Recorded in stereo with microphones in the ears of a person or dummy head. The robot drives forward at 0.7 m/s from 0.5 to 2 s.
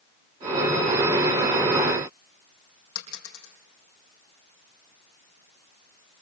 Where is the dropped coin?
75° left (ahead or behind), 5.5 m.